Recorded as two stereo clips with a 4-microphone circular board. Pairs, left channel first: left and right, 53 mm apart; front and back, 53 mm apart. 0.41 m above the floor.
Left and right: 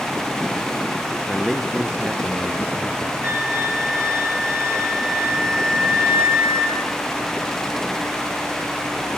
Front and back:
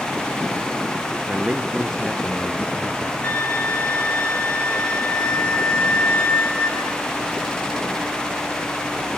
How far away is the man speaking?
About 1.0 m.